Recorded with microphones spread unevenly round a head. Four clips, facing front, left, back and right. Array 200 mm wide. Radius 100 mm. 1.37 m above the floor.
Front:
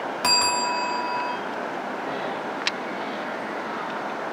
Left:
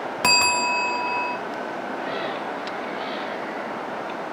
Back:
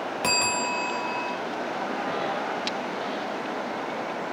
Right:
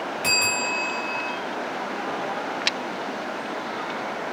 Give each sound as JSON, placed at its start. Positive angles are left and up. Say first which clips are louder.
{"t": 0.2, "sound": "a bell", "louder": "left 9 dB, front 4 dB", "azimuth_deg": 80, "distance_m": 0.8}